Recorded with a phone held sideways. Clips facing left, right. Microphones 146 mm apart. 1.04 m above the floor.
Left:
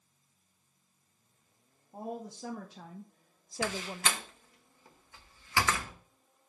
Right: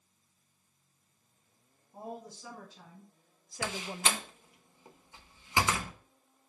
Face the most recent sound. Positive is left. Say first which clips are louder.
# left 1 dB
turn(degrees=-20)  # may be behind; listen again after turning